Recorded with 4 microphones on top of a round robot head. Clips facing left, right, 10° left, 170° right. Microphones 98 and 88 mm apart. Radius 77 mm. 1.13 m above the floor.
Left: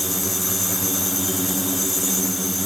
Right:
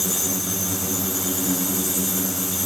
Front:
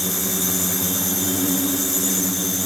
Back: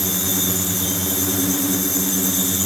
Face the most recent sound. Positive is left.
No sound to turn to.